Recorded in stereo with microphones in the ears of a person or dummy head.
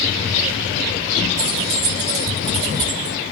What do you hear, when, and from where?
1.4 s keys jangling: 55° right (ahead or behind), 2 m; by 3.2 s 10° right (ahead or behind), 1.2 m